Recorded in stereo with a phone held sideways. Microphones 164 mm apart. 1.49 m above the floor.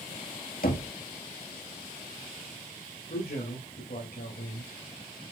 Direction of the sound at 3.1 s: 70° left (ahead or behind).